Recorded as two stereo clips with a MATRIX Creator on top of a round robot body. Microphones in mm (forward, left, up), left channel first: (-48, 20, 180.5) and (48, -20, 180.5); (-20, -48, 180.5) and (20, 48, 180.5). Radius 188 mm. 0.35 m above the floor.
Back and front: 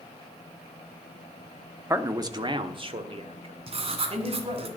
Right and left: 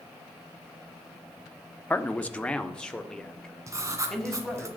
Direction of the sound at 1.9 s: 55° right.